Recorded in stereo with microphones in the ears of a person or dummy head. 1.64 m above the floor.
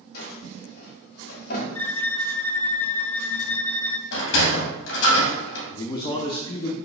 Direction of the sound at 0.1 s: 55° left (ahead or behind).